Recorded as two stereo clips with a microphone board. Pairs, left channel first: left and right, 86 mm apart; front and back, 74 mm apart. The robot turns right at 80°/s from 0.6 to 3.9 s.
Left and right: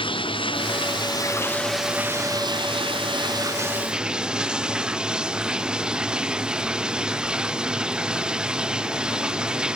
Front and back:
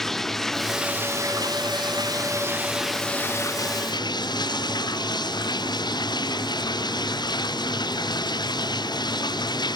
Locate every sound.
0.0 s running water: 85° left; by 9.8 s 10° right